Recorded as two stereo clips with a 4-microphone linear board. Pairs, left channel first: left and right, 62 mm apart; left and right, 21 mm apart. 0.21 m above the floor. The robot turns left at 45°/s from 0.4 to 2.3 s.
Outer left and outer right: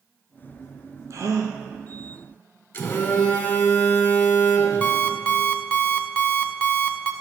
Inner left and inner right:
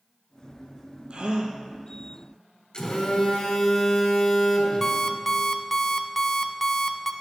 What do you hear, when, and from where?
1.1 s a gasp: 55° right (ahead or behind), 1.1 m; by 1.6 s 75° right (ahead or behind), 1.1 m
2.7 s a phone buzzing: 35° left (ahead or behind), 1.8 m
4.8 s an alarm clock: 20° left (ahead or behind), 0.6 m